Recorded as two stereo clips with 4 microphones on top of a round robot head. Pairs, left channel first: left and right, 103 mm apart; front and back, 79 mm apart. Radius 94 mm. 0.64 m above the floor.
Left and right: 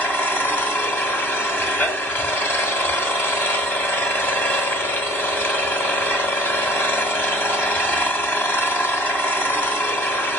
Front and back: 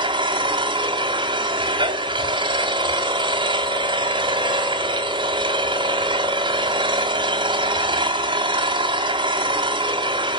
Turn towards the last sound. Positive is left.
turn(degrees=160)